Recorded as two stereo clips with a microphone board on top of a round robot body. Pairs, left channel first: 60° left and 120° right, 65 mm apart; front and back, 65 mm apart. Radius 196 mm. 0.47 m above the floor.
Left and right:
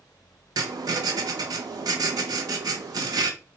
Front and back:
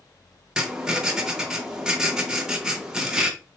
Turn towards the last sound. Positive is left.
turn(degrees=-100)